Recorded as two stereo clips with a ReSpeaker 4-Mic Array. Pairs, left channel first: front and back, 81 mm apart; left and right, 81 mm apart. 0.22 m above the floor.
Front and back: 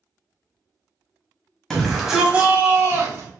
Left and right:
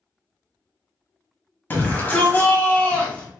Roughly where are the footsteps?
No footsteps in this recording.